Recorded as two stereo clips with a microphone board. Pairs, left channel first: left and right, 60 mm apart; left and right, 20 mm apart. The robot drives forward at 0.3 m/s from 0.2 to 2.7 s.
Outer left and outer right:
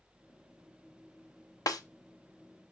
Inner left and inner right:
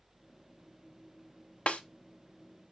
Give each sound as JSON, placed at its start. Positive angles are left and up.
{"t": 1.7, "sound": "a snare drum", "side_deg": 75, "distance_m": 0.6}